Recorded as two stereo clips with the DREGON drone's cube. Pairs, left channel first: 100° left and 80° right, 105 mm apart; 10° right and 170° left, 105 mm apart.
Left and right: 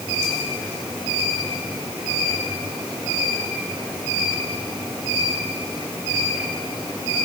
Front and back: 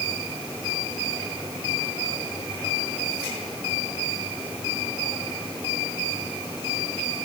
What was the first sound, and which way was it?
Only background noise.